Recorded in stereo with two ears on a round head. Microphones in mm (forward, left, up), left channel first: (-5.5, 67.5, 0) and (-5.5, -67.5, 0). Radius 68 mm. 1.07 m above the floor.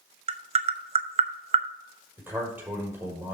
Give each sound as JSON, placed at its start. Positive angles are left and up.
{"t": 0.3, "sound": "tapping", "side_deg": -40, "distance_m": 0.7}
{"t": 2.2, "sound": "a man speaking", "side_deg": -15, "distance_m": 5.5}